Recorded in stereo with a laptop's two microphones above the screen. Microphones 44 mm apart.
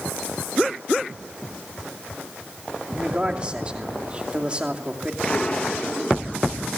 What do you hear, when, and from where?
2.9 s a man speaking: 25° right (ahead or behind), 2.5 m
5.2 s an explosion: 25° left (ahead or behind), 0.9 m